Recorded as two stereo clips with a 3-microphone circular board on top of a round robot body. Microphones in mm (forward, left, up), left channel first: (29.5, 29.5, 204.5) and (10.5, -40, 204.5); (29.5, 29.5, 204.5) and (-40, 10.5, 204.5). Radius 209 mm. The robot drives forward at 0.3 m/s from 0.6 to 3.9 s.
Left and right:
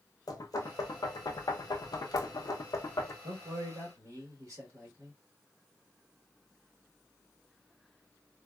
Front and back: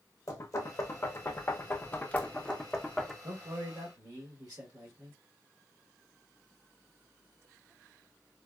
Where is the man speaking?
140° right, 1.3 m; by 5.2 s 145° right, 1.4 m.